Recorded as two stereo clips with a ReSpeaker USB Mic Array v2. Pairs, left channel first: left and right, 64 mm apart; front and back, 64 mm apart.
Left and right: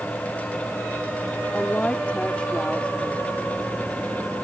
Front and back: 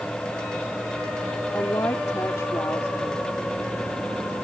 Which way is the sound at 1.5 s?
25° left.